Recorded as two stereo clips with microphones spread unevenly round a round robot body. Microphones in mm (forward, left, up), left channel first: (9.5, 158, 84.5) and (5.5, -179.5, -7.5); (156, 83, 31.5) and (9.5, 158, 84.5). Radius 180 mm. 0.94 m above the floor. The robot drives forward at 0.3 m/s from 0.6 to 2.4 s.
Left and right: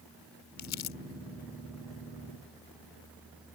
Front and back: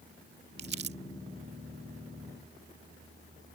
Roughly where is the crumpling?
Behind left.